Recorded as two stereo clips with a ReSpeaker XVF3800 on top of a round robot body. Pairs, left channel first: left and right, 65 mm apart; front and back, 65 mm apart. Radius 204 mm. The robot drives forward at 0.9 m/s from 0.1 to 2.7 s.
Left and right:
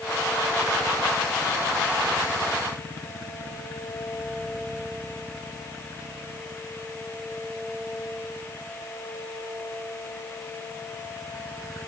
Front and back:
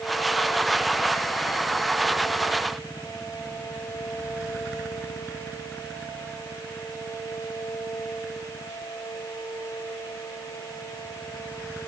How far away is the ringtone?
I don't hear a ringtone.